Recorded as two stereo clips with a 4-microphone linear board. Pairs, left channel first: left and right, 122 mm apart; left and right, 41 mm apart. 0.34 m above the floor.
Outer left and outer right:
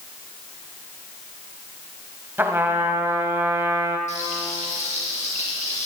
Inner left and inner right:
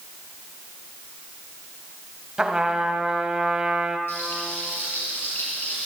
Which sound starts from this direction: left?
Frying, at 4.1 s.